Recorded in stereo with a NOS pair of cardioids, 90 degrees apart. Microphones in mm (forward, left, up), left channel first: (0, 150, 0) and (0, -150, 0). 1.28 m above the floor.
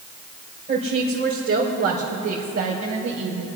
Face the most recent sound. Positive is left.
turn(degrees=-65)